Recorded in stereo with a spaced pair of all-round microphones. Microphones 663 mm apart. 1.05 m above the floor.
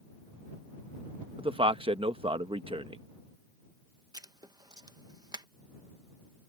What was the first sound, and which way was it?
A man speaking, 10° right (ahead or behind).